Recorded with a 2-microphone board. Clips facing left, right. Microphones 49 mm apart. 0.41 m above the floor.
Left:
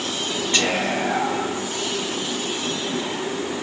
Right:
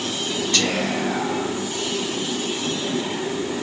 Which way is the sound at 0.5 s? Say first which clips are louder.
Left 2 dB; 20° left (ahead or behind).